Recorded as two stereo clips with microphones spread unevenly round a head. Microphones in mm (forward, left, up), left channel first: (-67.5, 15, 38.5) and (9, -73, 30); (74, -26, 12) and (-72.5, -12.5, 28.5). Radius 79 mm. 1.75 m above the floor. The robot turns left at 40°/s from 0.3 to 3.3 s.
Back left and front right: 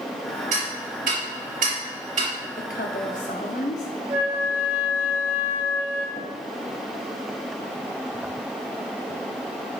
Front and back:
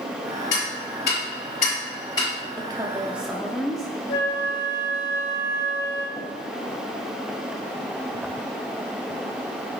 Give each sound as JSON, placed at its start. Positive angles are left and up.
{"t": 0.5, "sound": "ticking", "azimuth_deg": -5, "distance_m": 3.0}
{"t": 2.6, "sound": "a woman speaking", "azimuth_deg": 115, "distance_m": 0.9}
{"t": 4.1, "sound": "a flute", "azimuth_deg": 5, "distance_m": 2.0}
{"t": 6.2, "sound": "tapping", "azimuth_deg": 80, "distance_m": 2.0}